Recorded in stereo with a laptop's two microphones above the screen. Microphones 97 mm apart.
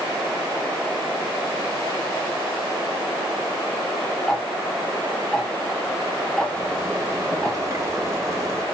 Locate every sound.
4.3 s ticking: 10° left (ahead or behind), 1.0 m
6.5 s a zipper: 30° right (ahead or behind), 1.7 m